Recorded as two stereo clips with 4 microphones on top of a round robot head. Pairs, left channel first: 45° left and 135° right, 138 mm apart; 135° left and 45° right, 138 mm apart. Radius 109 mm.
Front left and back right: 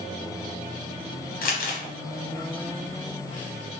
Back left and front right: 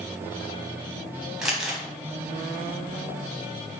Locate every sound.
1.4 s crumpling: 40° left, 0.8 m